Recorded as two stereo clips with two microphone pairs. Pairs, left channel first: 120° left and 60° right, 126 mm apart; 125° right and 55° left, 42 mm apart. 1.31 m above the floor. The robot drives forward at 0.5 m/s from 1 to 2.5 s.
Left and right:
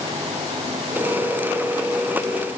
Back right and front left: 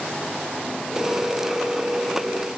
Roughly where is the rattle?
No rattle in this recording.